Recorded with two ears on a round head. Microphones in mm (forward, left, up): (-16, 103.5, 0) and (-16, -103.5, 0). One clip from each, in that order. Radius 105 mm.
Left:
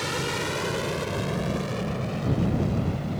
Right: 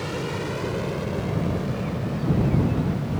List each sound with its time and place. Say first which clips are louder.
0.0 s an aircraft: left 1 dB; 55° left (ahead or behind); by 3.2 s 50° left (ahead or behind)